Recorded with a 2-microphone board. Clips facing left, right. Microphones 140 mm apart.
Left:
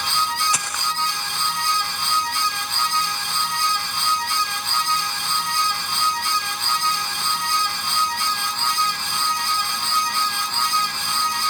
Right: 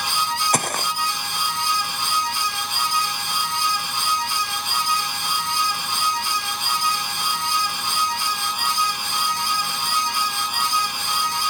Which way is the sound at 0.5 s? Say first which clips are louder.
Right 5 dB; 55° right (ahead or behind).